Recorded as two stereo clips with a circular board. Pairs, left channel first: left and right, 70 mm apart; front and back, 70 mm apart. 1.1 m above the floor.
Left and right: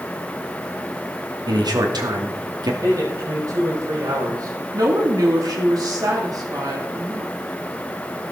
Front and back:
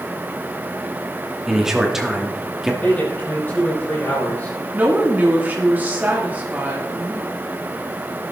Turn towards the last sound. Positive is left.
turn(degrees=-115)